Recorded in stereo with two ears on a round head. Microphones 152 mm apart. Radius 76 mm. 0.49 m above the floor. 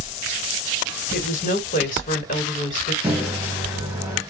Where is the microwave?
10° right (ahead or behind), 1.3 m.